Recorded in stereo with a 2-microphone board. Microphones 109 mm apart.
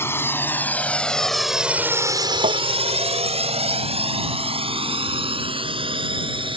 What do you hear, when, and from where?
0.0 s a drone: 20° left (ahead or behind); by 6.6 s 50° right (ahead or behind)
2.4 s tapping: 75° right (ahead or behind)